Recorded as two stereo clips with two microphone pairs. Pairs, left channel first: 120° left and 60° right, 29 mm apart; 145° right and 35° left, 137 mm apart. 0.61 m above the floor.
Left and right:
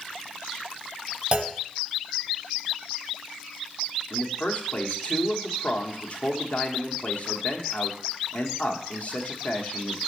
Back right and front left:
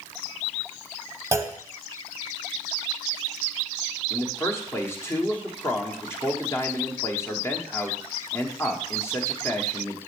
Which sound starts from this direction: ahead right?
A clunk, at 1.3 s.